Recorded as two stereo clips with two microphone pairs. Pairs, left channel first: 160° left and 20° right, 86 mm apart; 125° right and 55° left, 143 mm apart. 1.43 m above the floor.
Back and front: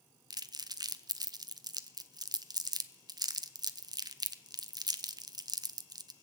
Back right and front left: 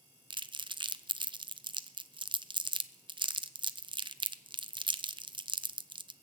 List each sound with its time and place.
0.3 s crumpling: 5° left, 0.5 m